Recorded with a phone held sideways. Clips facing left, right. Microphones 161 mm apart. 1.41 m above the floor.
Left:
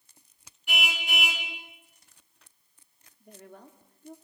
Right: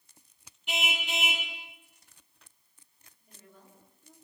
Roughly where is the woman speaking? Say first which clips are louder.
Left 9 dB; left.